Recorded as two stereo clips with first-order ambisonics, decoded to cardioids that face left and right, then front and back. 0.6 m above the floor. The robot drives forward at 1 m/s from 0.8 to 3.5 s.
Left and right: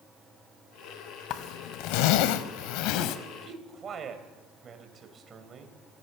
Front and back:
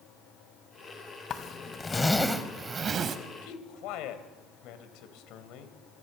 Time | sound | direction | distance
1.3 | a zipper | 55° left | 1.7 m
3.4 | a man speaking | 25° right | 3.5 m